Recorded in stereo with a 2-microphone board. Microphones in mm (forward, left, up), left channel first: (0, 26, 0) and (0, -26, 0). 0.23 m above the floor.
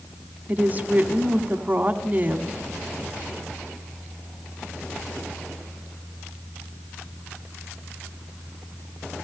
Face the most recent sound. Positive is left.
turn(degrees=-30)  # may be behind; listen again after turning